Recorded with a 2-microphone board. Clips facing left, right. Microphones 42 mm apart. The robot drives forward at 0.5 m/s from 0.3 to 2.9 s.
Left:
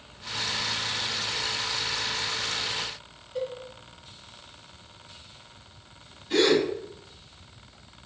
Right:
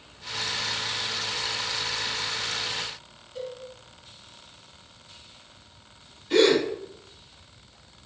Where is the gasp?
Centre (ahead or behind), 1.9 m.